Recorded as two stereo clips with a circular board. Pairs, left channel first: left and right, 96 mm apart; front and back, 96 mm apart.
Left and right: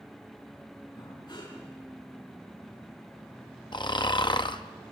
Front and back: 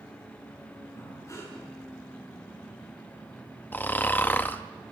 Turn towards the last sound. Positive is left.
turn(degrees=65)